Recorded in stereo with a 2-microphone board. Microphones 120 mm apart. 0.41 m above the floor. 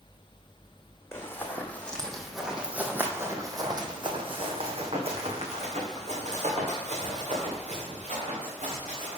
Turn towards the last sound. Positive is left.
turn(degrees=-85)